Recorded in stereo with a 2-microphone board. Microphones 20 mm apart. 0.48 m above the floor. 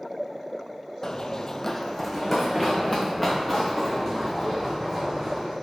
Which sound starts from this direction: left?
Running footsteps, at 1.0 s.